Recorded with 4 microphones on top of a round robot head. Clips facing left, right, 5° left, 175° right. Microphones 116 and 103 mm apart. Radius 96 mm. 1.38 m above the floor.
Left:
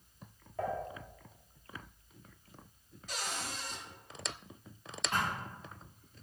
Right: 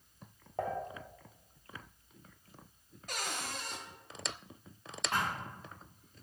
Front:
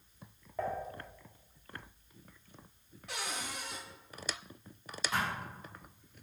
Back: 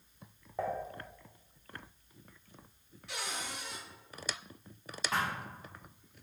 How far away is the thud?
About 1.0 m.